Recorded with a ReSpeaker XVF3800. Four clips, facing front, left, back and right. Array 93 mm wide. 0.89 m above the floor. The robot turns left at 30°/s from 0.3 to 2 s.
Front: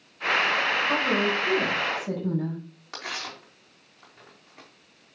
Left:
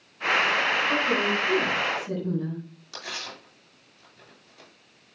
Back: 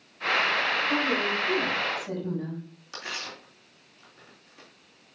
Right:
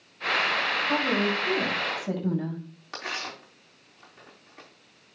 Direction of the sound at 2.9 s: 45° right.